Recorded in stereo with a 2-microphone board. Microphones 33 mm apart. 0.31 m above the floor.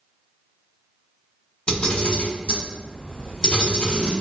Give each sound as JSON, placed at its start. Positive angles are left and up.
{"t": 1.7, "sound": "a camera shutter", "side_deg": 30, "distance_m": 1.3}